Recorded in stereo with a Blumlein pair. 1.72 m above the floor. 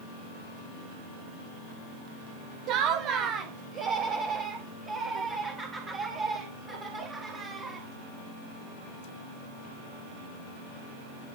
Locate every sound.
2.7 s laughter: 40° right, 0.7 m; by 7.9 s 25° right, 3.5 m